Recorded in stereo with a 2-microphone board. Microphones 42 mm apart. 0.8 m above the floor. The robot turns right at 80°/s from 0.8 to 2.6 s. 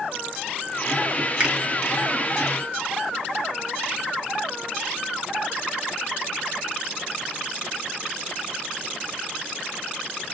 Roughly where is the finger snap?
Right.